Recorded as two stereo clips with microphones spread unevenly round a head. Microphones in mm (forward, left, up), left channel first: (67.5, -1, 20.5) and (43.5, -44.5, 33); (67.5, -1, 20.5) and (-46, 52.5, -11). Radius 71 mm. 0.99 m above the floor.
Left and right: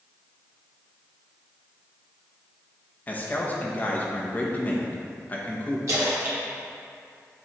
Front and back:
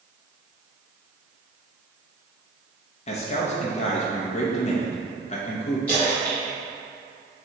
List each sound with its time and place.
3.1 s a man speaking: 15° left, 1.0 m
5.9 s a splash: 105° right, 1.8 m